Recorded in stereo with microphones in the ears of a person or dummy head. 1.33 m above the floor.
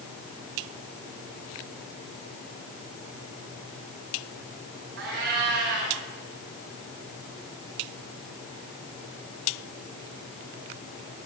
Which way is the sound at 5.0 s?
50° right (ahead or behind).